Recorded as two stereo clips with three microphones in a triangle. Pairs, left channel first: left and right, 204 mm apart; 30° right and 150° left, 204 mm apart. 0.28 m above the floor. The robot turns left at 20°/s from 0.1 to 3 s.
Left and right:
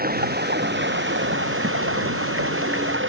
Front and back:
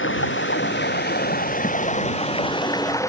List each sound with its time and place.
0.0 s running water: 50° right; by 3.1 s 105° right